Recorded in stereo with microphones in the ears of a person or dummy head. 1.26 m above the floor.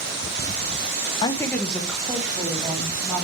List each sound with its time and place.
1.2 s a woman speaking: 30° left (ahead or behind), 0.7 m; by 3.2 s 10° right (ahead or behind), 3.5 m